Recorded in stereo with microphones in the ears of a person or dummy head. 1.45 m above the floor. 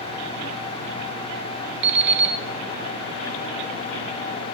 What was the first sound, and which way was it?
An alarm clock, 60° right (ahead or behind).